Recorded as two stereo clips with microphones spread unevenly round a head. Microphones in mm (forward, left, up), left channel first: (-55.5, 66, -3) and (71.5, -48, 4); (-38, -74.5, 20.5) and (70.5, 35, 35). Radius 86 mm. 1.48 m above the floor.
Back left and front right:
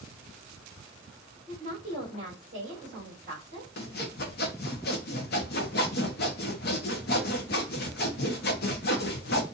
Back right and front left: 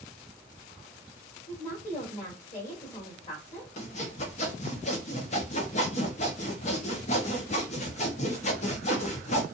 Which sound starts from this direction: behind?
Sawing, at 3.8 s.